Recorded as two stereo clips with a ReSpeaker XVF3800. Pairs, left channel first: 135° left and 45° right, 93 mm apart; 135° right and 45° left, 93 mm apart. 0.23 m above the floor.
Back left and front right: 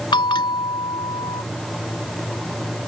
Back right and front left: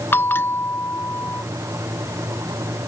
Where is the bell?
160° left.